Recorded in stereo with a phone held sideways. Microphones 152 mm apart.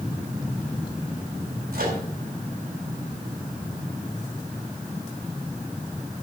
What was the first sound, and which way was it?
A microwave, 85° right.